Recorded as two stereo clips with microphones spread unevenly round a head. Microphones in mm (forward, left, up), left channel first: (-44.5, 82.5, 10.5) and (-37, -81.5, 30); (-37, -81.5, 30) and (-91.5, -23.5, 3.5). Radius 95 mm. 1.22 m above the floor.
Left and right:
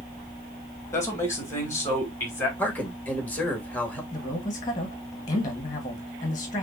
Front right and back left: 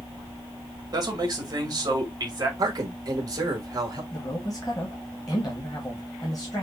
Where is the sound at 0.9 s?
165° left, 2 m.